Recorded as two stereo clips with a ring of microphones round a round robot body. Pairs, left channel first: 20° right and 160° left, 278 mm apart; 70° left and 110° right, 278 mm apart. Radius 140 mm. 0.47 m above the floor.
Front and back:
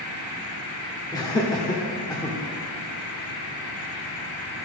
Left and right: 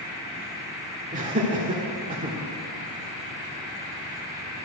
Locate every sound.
1.1 s laughter: 85° right, 1.4 m